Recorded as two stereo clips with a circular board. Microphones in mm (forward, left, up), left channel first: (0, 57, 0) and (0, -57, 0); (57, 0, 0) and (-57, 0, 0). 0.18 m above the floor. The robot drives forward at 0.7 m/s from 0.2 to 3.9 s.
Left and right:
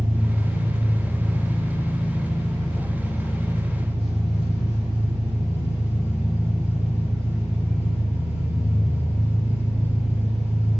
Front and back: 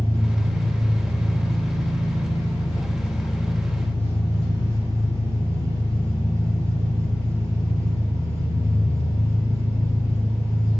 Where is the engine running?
160° right, 1.3 m; by 10.8 s 175° right, 3.5 m.